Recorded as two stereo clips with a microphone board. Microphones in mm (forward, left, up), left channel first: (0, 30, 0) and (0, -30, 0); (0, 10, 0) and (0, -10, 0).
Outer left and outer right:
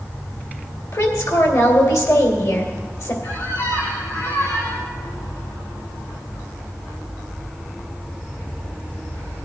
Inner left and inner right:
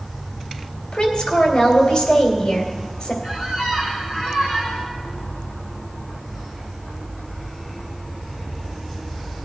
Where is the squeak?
65° left (ahead or behind), 6 m.